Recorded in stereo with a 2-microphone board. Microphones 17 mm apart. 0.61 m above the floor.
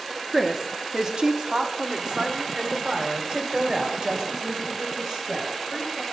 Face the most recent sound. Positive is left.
turn(degrees=-45)  # may be behind; listen again after turning